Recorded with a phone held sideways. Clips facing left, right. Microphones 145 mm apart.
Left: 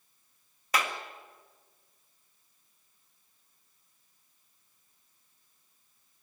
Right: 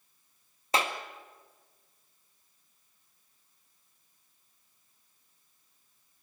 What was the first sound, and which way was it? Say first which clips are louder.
A clap: right 2 dB; 25° right (ahead or behind).